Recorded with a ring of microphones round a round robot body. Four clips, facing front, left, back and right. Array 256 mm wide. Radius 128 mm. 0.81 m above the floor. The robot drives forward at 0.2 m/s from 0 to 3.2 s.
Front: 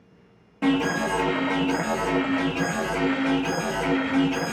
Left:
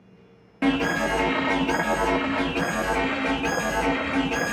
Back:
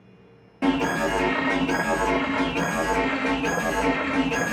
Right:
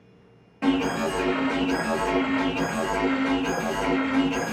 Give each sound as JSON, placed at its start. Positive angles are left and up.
{"t": 0.6, "sound": "an alarm", "azimuth_deg": 95, "distance_m": 1.3}